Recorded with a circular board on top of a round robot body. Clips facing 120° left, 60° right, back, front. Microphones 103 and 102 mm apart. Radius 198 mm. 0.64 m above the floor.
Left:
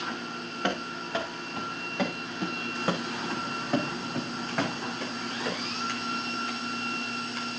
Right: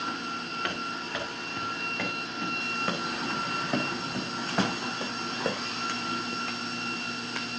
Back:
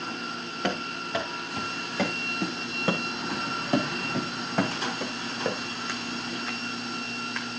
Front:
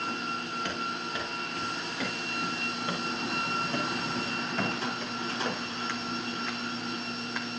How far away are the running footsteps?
About 4 m.